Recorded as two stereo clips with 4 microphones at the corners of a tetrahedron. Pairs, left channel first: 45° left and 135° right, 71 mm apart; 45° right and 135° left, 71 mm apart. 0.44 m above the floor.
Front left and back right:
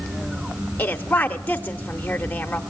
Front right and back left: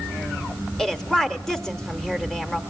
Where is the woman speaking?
30° left, 0.8 m.